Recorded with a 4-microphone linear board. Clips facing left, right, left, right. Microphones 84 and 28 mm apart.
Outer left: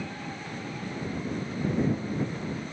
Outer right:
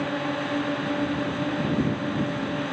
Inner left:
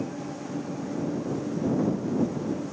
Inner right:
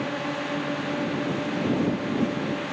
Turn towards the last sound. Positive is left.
turn(degrees=-70)  # may be behind; listen again after turning